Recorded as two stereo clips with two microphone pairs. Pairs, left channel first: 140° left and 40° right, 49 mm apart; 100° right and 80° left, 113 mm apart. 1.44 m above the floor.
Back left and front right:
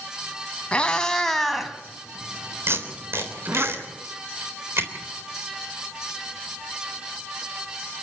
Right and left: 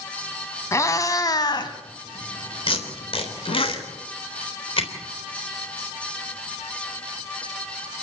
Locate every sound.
0.7 s a cat meowing: 155° right, 1.9 m; by 3.7 s 80° right, 2.5 m
2.7 s tape being pulled: 70° right, 3.5 m